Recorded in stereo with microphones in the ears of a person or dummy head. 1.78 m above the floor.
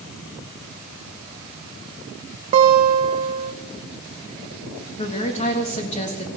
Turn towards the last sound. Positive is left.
turn(degrees=35)  # may be behind; listen again after turning